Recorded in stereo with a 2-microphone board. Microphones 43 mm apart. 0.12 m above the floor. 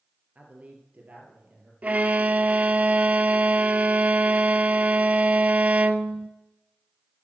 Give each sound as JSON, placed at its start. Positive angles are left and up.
{"t": 0.3, "sound": "a man speaking", "side_deg": -35, "distance_m": 2.5}
{"t": 1.8, "sound": "a violin", "side_deg": -35, "distance_m": 0.5}